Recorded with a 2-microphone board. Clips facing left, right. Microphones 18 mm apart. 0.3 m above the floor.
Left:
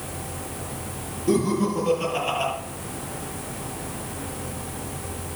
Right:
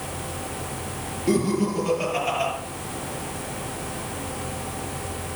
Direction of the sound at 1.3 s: 65° right (ahead or behind).